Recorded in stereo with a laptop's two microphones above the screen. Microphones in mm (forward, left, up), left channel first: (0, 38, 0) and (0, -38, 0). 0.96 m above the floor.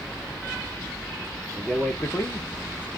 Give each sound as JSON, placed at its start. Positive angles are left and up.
{"t": 1.5, "sound": "a man speaking", "side_deg": -20, "distance_m": 0.5}